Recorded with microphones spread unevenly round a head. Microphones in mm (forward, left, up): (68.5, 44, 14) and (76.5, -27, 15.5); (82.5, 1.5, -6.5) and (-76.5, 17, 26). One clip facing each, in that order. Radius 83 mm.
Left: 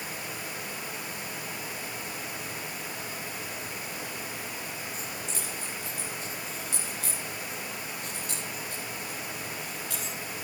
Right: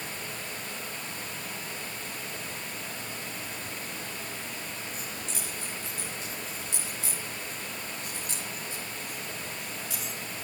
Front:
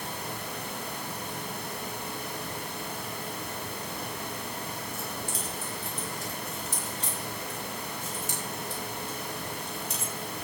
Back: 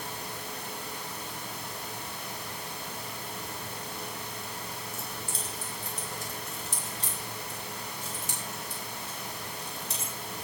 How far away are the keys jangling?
About 4.5 m.